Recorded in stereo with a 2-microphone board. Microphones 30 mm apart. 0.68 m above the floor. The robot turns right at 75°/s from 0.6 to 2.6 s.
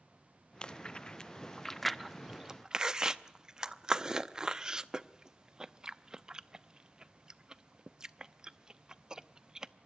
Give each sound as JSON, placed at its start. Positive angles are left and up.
{"t": 0.6, "sound": "chewing", "side_deg": 35, "distance_m": 0.6}